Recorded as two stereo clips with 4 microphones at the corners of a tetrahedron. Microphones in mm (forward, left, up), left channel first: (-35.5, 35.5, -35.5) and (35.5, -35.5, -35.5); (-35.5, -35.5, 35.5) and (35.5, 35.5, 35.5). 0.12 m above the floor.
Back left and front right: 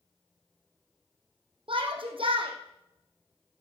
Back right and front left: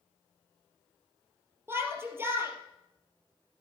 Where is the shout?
20° right, 3 m.